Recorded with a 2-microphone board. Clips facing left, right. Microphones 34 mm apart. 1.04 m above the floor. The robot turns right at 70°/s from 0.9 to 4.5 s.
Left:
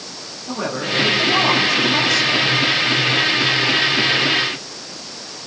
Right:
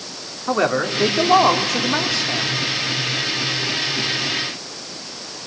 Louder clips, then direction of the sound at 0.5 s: Right 4 dB; 115° right.